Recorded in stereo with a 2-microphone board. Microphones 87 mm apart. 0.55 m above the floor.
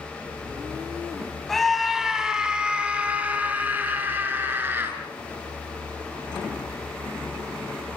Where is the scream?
5° left (ahead or behind), 4 m; by 5.0 s 25° right (ahead or behind), 7.5 m.